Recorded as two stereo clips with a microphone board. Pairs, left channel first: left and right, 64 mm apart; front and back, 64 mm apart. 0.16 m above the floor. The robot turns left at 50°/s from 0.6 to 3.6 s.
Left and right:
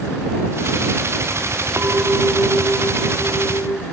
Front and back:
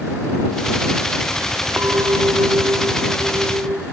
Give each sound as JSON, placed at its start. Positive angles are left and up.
{"t": 1.8, "sound": "a clink", "azimuth_deg": -135}